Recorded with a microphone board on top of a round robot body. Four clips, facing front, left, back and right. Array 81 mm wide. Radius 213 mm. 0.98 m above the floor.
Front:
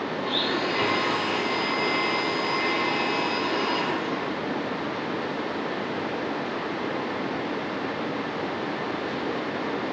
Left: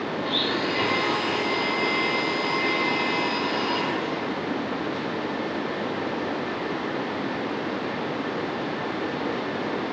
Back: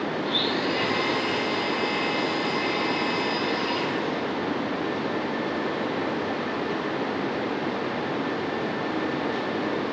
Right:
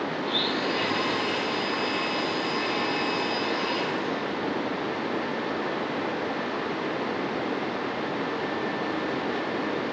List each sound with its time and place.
0.2 s a blender: 30° left, 0.7 m